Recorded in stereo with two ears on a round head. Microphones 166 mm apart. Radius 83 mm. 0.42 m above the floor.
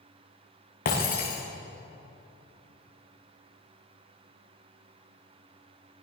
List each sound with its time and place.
0.8 s breaking glass: 50° left (ahead or behind), 6.5 m